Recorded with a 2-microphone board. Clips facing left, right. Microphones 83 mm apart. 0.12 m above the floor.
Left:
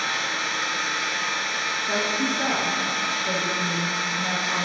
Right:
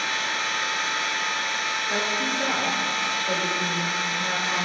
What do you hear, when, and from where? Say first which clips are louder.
0.0 s an engine running: even; 25° left (ahead or behind), 2.5 m
1.9 s a woman speaking: left 3 dB; 55° left (ahead or behind), 2.5 m